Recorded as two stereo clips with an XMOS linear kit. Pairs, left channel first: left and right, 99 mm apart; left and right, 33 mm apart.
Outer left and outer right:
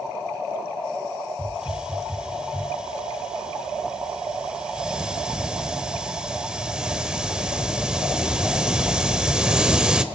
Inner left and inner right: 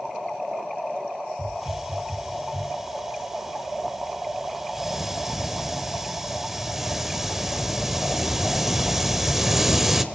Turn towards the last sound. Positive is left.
turn(degrees=-10)  # may be behind; listen again after turning